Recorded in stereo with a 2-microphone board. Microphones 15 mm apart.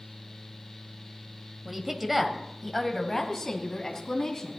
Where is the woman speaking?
20° right (ahead or behind), 1.3 m; by 4.6 s 35° left (ahead or behind), 2.5 m.